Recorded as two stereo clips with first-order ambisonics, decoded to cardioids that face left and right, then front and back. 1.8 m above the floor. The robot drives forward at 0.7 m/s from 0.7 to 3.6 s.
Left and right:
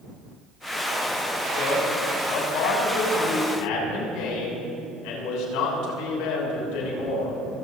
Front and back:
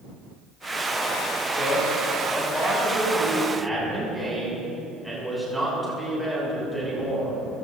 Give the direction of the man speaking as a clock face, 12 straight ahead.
9 o'clock.